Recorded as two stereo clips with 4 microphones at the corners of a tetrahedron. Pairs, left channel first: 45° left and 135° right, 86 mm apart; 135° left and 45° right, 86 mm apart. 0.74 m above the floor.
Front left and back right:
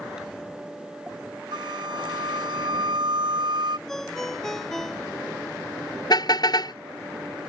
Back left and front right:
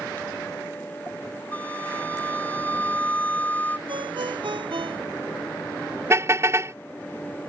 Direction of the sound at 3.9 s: 40° right.